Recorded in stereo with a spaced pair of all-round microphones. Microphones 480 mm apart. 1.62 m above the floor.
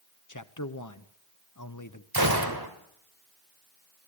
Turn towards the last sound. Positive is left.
turn(degrees=-50)  # may be behind; listen again after turning